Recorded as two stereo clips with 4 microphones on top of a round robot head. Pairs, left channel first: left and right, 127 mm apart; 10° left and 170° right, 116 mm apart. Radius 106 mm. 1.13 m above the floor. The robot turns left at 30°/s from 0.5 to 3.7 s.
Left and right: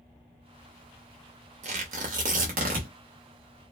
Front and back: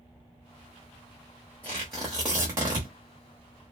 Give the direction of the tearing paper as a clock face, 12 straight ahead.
2 o'clock.